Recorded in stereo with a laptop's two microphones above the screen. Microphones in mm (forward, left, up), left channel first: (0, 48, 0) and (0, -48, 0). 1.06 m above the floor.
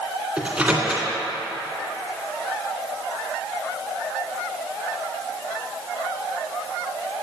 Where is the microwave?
15° right (ahead or behind), 2 m.